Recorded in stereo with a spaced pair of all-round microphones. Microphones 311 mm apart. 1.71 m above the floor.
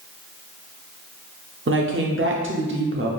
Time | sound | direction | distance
1.7 | a woman speaking | 40° right (ahead or behind) | 0.5 m